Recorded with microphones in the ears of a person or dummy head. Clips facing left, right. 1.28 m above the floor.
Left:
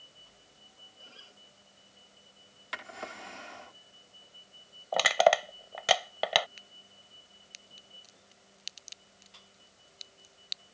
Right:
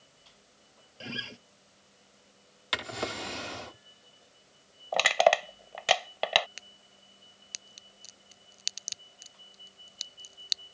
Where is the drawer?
50° right (ahead or behind).